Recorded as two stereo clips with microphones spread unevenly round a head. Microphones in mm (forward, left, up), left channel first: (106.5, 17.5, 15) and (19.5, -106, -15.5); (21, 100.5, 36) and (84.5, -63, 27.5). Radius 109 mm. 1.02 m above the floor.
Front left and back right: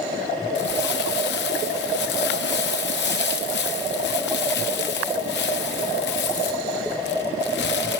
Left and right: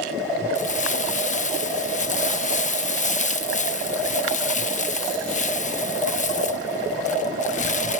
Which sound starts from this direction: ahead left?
Crumpling, at 0.6 s.